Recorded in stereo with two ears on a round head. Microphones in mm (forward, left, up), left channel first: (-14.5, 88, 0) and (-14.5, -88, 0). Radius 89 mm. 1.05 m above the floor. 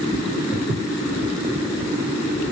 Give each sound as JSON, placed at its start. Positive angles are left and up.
{"t": 0.5, "sound": "footsteps", "side_deg": -20, "distance_m": 1.2}